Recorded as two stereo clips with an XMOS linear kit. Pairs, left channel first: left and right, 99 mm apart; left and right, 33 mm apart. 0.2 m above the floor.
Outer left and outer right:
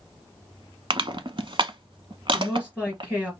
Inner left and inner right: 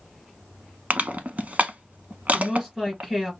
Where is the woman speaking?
10° right (ahead or behind), 3.5 m.